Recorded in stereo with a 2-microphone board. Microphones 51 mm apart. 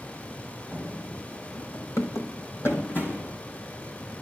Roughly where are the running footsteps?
Left.